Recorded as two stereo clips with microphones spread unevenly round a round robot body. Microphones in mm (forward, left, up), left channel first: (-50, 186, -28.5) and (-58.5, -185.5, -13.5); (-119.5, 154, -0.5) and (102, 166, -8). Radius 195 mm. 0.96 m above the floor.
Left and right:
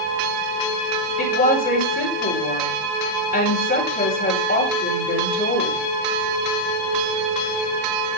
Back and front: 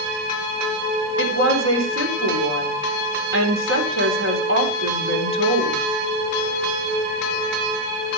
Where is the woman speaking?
20° left, 3.5 m.